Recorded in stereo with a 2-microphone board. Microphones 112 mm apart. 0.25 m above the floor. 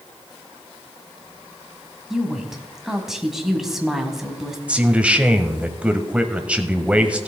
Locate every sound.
2.1 s a woman speaking: 5° right (ahead or behind), 1.5 m
4.7 s a man speaking: 10° right (ahead or behind), 1.0 m